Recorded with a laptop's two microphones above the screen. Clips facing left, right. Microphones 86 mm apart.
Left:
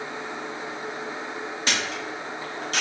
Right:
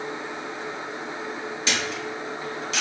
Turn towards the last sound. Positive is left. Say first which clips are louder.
# right 1 dB
turn(degrees=50)  # may be behind; listen again after turning